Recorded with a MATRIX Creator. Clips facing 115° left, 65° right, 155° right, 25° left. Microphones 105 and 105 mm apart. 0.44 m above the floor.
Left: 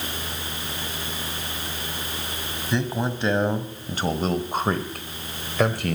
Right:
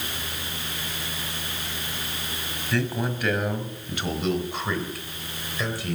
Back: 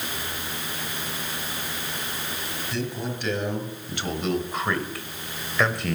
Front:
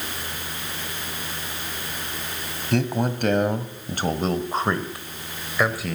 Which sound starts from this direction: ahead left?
A man speaking, at 2.7 s.